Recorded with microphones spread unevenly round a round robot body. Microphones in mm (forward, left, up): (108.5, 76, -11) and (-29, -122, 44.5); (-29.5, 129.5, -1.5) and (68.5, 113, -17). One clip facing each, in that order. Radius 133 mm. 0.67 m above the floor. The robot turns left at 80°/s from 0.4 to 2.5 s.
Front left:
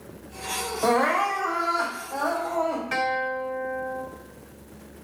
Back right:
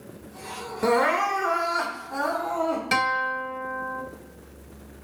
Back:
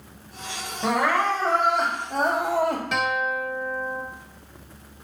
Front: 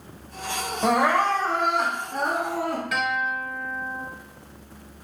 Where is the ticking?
No ticking in this recording.